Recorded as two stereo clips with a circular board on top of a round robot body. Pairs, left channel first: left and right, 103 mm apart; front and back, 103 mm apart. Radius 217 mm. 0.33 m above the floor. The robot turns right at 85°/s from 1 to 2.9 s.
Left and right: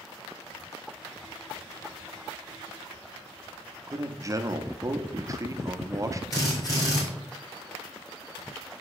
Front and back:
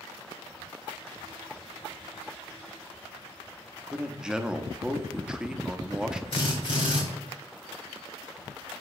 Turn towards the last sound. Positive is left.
turn(degrees=40)